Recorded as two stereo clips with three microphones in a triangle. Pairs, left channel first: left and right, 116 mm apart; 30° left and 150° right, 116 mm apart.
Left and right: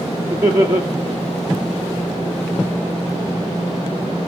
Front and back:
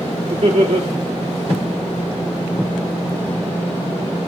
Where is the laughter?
150° right, 2 m.